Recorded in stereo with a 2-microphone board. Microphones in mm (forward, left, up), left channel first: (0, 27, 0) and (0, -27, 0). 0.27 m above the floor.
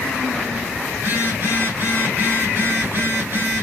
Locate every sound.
0.9 s a phone buzzing: 45° right (ahead or behind), 2 m